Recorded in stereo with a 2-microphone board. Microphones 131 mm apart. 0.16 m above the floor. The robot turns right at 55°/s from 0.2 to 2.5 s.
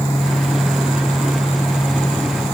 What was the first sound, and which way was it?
Only background noise.